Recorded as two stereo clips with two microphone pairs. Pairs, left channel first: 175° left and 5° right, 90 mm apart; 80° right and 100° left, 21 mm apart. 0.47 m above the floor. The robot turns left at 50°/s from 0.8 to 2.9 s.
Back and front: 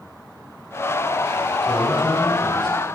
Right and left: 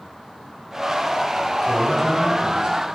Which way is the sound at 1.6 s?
165° right.